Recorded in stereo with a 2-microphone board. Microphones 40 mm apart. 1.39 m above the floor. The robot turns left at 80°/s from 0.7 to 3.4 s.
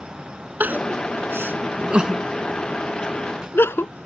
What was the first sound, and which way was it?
Crying, 50° right (ahead or behind).